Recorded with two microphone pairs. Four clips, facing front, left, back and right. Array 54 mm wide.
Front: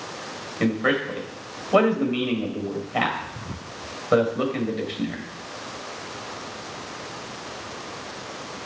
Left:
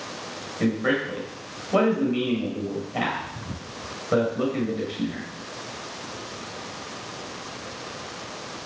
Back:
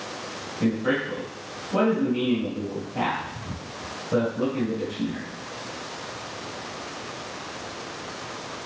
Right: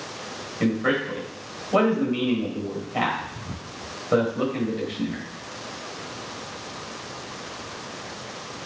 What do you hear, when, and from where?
0.6 s a man speaking: 5° right, 3.5 m